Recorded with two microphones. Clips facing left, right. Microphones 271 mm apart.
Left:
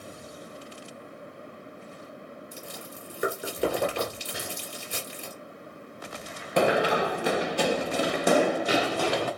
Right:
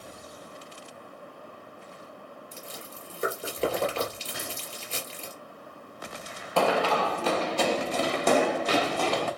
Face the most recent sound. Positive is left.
turn(degrees=10)  # may be behind; listen again after turning